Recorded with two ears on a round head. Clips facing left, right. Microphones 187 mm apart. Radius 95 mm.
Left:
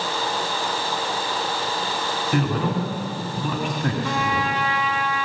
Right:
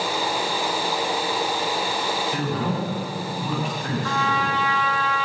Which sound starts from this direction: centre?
A trumpet, at 4.0 s.